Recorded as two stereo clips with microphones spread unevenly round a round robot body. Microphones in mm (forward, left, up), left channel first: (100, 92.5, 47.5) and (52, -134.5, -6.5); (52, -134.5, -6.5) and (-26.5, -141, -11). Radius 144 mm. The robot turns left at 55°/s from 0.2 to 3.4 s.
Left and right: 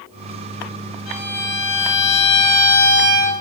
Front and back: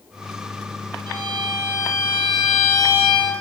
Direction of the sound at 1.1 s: 140° left.